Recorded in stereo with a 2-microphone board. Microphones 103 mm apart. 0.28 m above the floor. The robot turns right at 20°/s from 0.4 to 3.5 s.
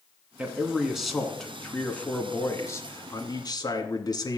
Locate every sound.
0.4 s a man speaking: 15° right, 2.5 m; by 4.4 s 50° left, 2.5 m